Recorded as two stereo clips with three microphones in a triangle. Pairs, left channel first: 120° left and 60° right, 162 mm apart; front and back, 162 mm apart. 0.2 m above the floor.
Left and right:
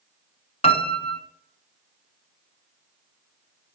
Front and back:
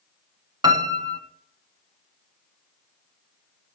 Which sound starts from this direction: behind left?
A piano, at 0.6 s.